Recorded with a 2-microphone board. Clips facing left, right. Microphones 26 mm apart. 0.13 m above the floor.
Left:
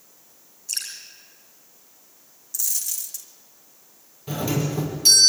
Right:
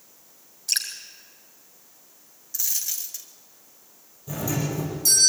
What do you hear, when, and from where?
0.7 s dripping: 80° right, 3.5 m
2.5 s a dropped coin: 25° right (ahead or behind), 1.5 m
4.3 s a doorbell: 45° left (ahead or behind), 4 m